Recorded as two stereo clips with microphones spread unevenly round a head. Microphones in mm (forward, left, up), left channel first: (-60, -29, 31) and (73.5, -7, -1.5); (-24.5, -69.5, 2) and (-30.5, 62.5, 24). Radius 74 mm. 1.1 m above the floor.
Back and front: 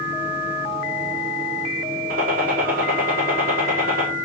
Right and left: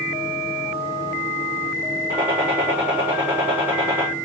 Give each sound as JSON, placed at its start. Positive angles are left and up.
{"t": 2.1, "sound": "a gunshot", "azimuth_deg": 10, "distance_m": 4.5}